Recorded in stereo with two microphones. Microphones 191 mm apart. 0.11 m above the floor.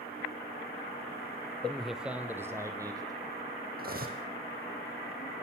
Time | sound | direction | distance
1.6 | a man speaking | 5° left (ahead or behind) | 2 m
3.8 | cutlery clinking | 50° right (ahead or behind) | 3 m